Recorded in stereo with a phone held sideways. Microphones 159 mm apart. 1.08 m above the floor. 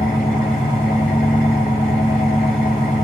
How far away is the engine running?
About 5 m.